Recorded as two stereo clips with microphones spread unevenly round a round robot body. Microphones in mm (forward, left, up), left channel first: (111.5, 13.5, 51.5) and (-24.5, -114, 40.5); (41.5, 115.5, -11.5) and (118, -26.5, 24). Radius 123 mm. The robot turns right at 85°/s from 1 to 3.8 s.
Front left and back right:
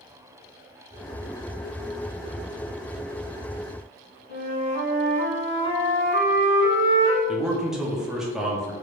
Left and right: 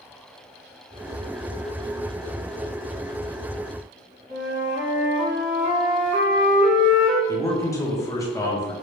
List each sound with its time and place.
4.3 s a flute: 95° right, 1.8 m
7.3 s a man speaking: 140° left, 0.6 m